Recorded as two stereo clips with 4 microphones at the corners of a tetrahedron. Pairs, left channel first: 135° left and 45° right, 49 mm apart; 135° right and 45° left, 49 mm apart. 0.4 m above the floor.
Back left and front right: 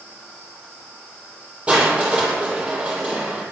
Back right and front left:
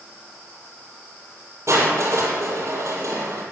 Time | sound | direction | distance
1.7 | crushing | 20° left | 7.5 m